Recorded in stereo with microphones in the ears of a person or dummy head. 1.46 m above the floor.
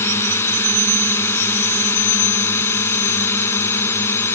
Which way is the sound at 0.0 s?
5° left (ahead or behind).